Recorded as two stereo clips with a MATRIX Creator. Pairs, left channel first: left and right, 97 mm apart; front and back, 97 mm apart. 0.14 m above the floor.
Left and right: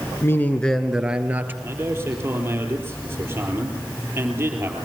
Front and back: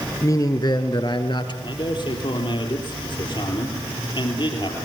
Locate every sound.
0.2 s a man speaking: 40° left, 1.7 m; by 1.5 s 25° right, 2.5 m
1.6 s a man speaking: 25° right, 4 m